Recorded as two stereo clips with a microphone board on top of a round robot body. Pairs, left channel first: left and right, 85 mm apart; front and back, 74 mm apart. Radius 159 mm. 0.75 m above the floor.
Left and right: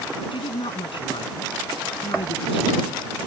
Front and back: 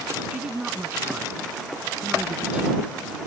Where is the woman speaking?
105° left.